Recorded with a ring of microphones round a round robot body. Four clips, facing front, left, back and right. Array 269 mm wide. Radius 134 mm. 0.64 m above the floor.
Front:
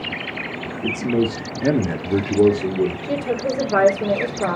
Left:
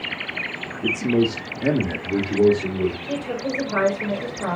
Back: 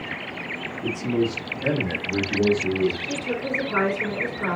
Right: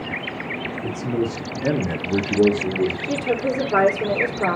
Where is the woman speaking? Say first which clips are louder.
Right 4 dB, front 6 dB; 50° right, 2 m.